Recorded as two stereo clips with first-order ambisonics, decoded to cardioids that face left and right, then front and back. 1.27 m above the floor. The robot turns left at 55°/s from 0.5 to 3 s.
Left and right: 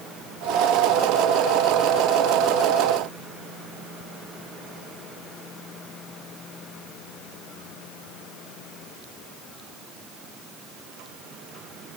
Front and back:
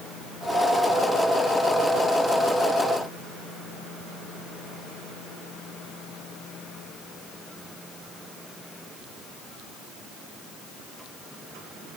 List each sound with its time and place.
Only background noise.